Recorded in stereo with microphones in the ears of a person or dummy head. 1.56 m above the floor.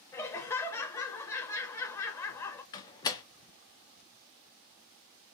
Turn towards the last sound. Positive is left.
turn(degrees=15)  # may be behind; listen again after turning